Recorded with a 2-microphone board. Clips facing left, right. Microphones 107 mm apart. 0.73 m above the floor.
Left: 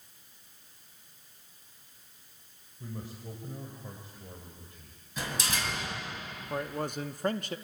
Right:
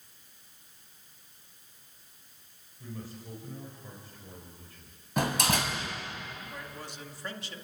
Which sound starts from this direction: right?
A door slam, at 5.2 s.